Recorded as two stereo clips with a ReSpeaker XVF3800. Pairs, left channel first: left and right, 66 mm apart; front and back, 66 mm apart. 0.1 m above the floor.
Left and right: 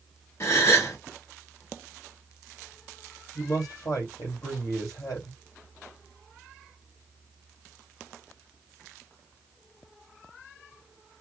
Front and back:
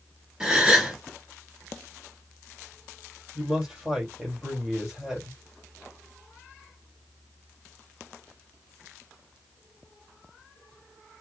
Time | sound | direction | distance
0.4 | a gasp | 105° left | 1.5 m
3.4 | a man speaking | 100° left | 2.5 m